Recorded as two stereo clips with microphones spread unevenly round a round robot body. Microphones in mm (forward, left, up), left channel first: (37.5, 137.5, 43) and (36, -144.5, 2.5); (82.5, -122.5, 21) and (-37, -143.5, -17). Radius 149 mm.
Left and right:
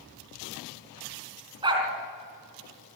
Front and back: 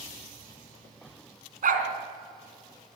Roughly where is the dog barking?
Behind.